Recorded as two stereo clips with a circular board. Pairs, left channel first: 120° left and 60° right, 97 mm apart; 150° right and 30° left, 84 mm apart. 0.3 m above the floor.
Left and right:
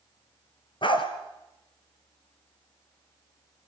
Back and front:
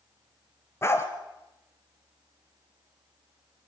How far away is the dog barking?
About 2.5 m.